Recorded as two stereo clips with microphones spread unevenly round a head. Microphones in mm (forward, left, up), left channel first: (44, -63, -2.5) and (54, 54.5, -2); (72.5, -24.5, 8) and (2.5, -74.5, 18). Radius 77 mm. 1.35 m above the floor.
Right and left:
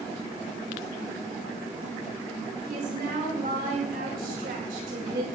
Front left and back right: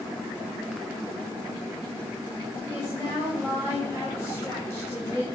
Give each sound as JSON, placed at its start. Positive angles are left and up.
{"t": 2.6, "sound": "a woman speaking", "azimuth_deg": 110, "distance_m": 9.0}